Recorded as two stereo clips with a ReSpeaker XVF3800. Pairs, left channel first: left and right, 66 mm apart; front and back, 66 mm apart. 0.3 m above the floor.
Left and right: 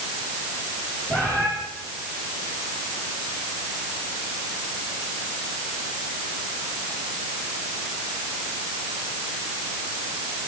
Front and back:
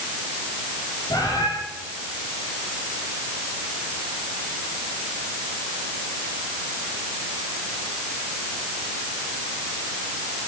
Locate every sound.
1.1 s a bird: 25° left, 8.5 m